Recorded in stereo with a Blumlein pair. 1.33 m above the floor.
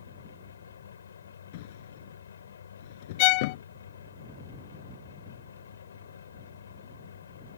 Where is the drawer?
50° left.